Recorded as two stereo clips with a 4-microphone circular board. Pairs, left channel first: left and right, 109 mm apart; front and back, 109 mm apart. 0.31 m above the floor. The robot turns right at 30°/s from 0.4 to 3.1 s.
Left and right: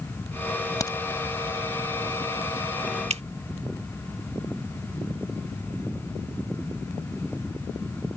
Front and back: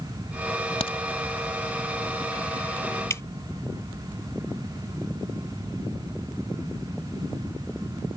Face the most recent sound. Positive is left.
turn(degrees=-65)